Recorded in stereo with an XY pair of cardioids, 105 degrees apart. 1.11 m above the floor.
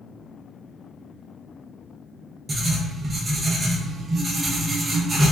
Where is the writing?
30° right, 0.7 m.